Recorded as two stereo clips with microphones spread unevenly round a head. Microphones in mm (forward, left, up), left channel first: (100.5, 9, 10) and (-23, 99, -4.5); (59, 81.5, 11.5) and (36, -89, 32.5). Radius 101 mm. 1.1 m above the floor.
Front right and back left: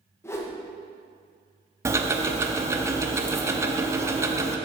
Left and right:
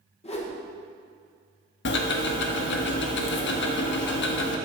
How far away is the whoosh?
About 1.3 m.